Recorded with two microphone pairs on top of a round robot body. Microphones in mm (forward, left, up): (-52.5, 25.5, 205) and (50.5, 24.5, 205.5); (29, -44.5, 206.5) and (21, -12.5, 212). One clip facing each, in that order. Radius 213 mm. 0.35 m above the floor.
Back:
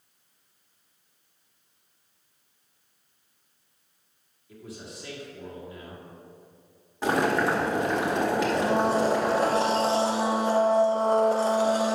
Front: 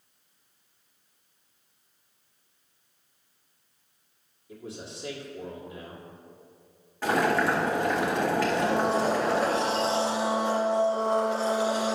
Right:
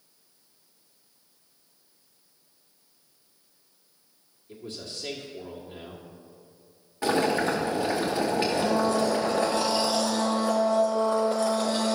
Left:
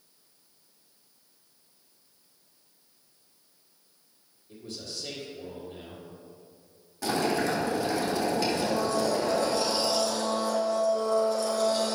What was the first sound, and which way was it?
A man speaking, 60° right.